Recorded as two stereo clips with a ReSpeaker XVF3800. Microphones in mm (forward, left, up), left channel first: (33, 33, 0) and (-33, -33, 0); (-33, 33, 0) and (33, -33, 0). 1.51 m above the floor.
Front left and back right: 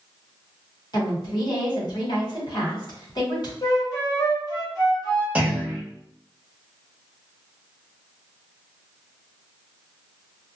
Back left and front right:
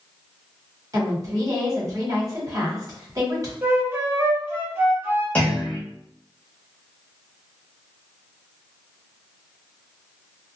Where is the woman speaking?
5° left, 1.2 m.